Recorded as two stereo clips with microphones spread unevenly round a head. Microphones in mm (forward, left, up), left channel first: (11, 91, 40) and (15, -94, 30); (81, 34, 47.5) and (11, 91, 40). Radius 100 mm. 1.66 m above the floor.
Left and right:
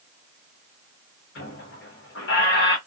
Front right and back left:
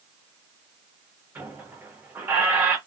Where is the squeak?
75° left, 1.1 m.